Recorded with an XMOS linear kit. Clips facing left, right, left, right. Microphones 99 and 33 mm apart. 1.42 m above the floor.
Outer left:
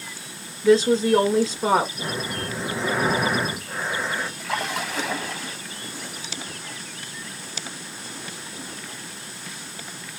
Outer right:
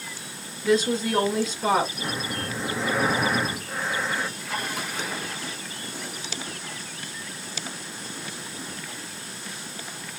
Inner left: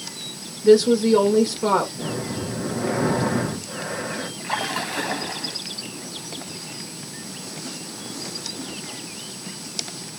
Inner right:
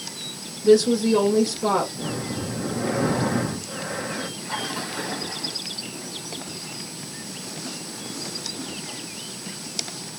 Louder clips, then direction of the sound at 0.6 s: Outer left 6 dB, inner left 2 dB; 30° left (ahead or behind).